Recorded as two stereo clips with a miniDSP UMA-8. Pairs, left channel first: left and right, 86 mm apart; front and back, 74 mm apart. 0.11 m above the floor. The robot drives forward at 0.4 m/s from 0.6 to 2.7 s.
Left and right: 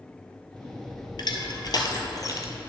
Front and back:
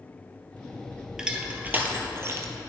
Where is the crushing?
100° left, 0.8 m; by 2.6 s 135° left, 1.0 m.